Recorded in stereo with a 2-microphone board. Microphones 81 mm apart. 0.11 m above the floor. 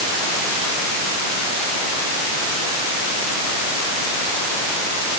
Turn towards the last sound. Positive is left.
No sound to turn to.